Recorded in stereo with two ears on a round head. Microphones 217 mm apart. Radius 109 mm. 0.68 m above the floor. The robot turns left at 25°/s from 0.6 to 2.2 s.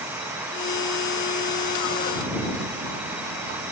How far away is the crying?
I don't hear crying.